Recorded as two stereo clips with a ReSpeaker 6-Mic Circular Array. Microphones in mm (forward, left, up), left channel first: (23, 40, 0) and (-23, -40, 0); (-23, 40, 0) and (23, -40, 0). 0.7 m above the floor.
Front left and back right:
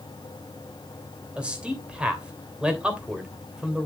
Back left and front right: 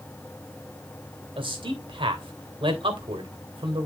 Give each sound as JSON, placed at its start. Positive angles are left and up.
{"t": 1.4, "sound": "a man speaking", "azimuth_deg": -40, "distance_m": 2.5}